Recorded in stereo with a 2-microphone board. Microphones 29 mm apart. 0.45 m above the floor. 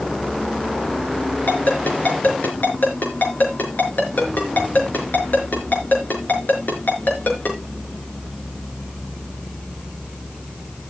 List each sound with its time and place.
1.5 s a ringtone: 75° left (ahead or behind), 4.5 m